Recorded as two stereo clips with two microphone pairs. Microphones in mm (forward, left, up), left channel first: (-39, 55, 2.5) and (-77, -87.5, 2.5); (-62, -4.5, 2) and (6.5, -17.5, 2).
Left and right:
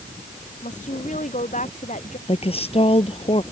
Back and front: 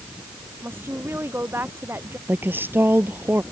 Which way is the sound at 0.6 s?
45° left.